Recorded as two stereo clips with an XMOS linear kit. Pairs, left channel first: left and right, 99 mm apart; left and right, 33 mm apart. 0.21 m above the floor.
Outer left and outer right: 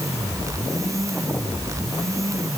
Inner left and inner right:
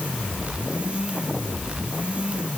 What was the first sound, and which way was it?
Only background noise.